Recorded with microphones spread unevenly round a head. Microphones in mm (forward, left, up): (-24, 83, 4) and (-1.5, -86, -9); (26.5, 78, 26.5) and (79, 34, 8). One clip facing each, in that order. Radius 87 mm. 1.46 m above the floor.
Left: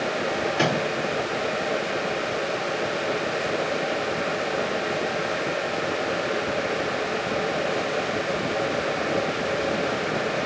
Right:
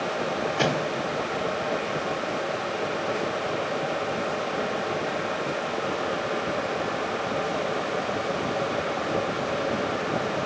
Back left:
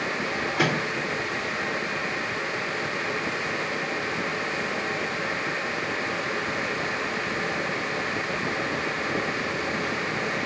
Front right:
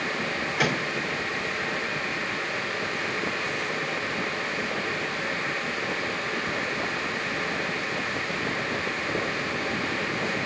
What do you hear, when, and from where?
0.6 s a microwave: 175° left, 2 m